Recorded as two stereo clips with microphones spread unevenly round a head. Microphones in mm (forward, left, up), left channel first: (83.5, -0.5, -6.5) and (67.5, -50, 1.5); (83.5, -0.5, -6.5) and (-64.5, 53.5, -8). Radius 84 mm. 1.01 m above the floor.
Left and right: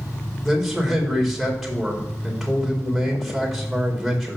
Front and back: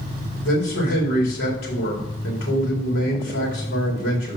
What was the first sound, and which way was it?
A man speaking, 20° right.